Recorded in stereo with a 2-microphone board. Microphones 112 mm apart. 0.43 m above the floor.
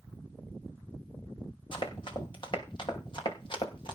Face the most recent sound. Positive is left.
turn(degrees=50)  # may be behind; listen again after turning